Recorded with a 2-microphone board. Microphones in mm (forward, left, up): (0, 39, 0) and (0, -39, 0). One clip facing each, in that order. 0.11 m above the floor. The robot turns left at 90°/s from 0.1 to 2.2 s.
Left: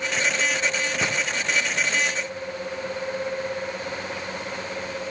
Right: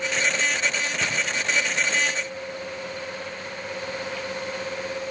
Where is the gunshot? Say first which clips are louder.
Left 2 dB; 20° left (ahead or behind), 3.5 m; by 1.2 s 10° left (ahead or behind), 3.5 m.